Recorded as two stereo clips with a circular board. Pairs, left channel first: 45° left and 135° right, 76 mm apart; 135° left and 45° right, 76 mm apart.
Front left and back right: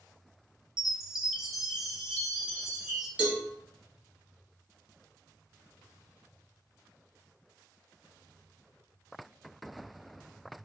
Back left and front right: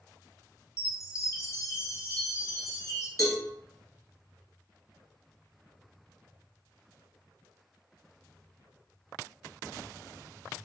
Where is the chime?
150° left, 0.6 m.